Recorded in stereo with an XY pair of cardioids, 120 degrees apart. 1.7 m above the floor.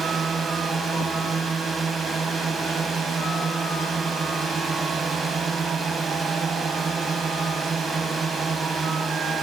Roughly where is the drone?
Ahead right.